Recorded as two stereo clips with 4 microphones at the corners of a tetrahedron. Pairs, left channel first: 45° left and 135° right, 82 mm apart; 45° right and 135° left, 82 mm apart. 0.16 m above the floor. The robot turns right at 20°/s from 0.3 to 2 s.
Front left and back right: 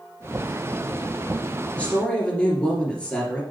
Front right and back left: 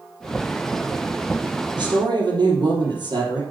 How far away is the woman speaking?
About 3 m.